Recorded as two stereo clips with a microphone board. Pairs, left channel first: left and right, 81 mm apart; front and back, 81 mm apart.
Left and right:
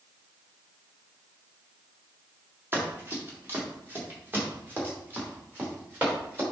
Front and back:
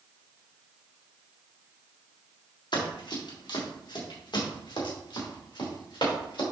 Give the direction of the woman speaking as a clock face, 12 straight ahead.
No woman speaking in this recording.